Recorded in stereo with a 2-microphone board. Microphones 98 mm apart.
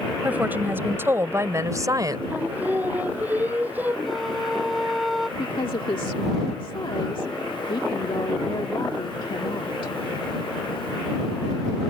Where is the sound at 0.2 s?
15° right (ahead or behind); by 2.2 s 40° right (ahead or behind).